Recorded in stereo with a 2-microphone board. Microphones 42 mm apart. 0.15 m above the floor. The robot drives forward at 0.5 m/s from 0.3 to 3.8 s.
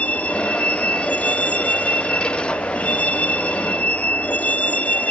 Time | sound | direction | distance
0.0 | a vehicle | 35° left (ahead or behind) | ?